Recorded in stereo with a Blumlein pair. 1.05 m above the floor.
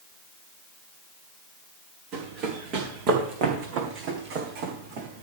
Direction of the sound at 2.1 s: 35° right.